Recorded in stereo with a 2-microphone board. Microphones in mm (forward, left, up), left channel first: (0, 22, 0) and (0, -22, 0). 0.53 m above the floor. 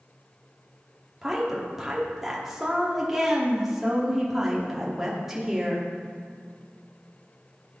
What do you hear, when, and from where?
1.2 s a woman speaking: 10° right (ahead or behind), 1.2 m